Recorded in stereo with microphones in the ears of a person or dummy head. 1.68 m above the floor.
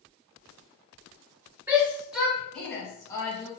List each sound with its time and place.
1.7 s a shout: 10° right (ahead or behind), 1.9 m; by 3.5 s 25° left (ahead or behind), 1.6 m